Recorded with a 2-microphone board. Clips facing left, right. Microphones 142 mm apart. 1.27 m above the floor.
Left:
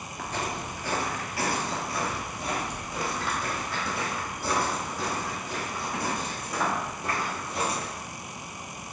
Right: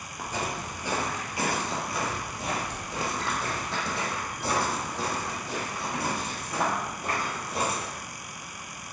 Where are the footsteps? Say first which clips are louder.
Even; 10° right (ahead or behind), 1.3 m; by 7.8 s 30° right (ahead or behind), 4.5 m.